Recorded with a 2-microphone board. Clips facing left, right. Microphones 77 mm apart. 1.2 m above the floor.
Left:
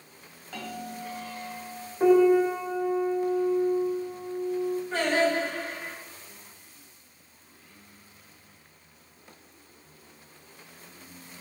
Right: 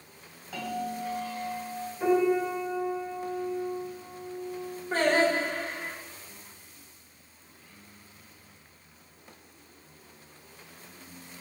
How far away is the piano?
About 0.7 m.